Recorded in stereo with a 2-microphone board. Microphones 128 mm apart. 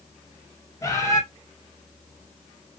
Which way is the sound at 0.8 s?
25° left (ahead or behind).